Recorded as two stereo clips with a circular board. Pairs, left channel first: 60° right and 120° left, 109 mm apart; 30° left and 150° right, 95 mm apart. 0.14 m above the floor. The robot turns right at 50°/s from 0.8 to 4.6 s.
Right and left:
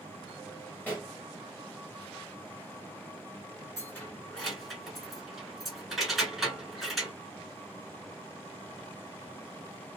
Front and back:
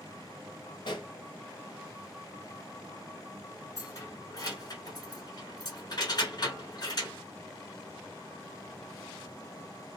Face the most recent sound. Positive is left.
turn(degrees=30)